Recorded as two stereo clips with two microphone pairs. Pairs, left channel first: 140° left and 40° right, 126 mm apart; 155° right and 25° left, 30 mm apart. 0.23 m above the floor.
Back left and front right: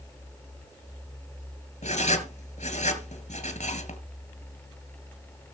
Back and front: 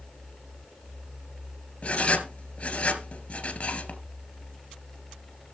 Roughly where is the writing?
Behind left.